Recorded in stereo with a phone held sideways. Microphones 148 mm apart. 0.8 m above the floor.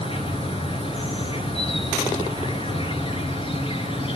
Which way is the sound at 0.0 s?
40° left (ahead or behind).